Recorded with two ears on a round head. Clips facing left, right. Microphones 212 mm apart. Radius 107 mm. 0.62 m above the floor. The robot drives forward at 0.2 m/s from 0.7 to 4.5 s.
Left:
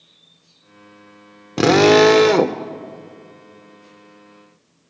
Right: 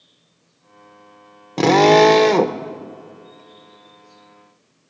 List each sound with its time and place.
1.6 s a drill: 10° left (ahead or behind), 0.8 m